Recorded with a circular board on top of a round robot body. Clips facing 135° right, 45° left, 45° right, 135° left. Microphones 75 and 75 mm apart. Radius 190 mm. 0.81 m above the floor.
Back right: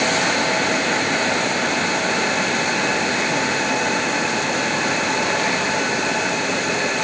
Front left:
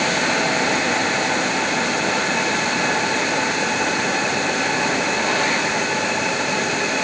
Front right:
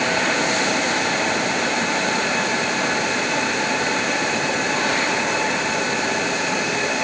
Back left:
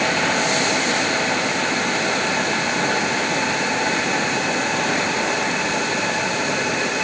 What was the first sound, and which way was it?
Only background noise.